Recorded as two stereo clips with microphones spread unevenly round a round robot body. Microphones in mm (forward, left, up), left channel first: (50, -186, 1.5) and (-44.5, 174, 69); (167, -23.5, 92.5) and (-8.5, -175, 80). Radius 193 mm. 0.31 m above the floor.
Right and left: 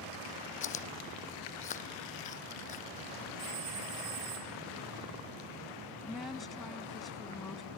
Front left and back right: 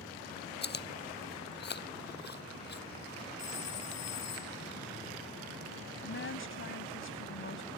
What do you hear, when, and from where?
0.6 s chewing: 5° right
3.4 s a phone ringing: 70° left
6.0 s a woman speaking: 10° left